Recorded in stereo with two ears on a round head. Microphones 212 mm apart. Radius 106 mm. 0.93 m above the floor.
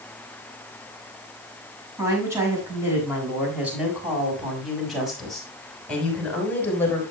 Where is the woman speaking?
15° right (ahead or behind), 6.5 m; by 7.0 s 10° left (ahead or behind), 5 m.